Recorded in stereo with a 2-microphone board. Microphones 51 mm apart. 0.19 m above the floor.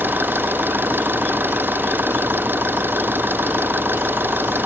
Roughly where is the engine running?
Right.